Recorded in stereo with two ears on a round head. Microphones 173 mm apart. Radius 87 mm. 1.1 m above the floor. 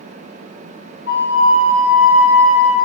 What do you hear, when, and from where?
1.1 s a flute: 55° left (ahead or behind), 0.8 m